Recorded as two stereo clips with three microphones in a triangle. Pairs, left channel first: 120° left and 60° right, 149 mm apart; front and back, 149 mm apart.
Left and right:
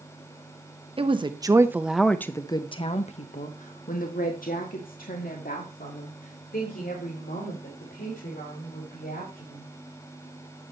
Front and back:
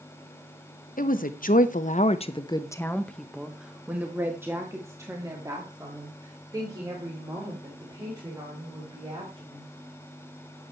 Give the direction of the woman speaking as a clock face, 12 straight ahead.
12 o'clock.